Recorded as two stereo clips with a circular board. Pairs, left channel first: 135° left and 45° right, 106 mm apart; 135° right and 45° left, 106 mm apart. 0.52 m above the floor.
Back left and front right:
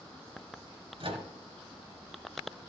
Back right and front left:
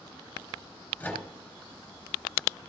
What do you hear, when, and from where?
1.0 s a microwave: 60° right, 2.5 m